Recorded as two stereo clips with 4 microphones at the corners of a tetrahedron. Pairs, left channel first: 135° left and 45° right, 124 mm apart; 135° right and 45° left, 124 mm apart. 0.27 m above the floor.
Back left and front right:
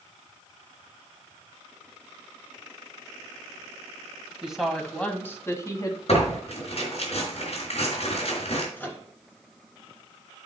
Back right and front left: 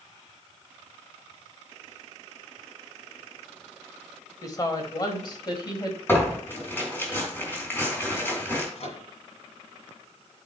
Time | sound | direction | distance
4.4 | a woman speaking | 125° right | 1.4 m
6.1 | tearing paper | 155° left | 3.5 m
8.8 | a microwave | 150° right | 1.8 m